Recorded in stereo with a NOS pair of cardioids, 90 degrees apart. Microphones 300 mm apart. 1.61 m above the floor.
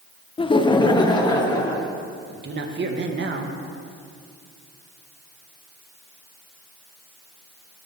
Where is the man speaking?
40° right, 1.5 m.